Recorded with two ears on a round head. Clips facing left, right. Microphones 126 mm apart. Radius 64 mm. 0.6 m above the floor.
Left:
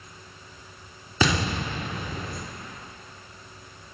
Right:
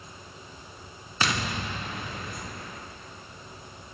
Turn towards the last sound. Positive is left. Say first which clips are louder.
# left 5 dB
turn(degrees=75)  # may be behind; listen again after turning